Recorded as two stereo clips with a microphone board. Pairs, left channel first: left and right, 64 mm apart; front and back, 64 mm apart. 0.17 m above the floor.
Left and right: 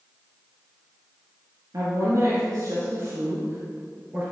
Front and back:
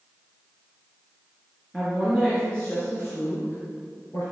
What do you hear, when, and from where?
1.7 s a woman speaking: 90° right, 3 m; by 4.2 s 25° right, 3 m